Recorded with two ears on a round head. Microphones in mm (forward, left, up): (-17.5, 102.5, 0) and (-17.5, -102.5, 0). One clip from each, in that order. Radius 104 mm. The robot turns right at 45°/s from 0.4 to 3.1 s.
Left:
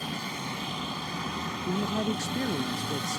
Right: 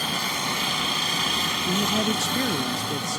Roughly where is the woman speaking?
Right.